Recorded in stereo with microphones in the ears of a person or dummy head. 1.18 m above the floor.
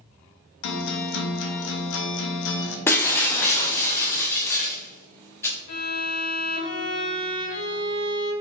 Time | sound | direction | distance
0.6 | a guitar | 65° left (ahead or behind) | 0.6 m
2.9 | breaking glass | 10° left (ahead or behind) | 0.7 m
5.7 | a violin | 55° left (ahead or behind) | 1.4 m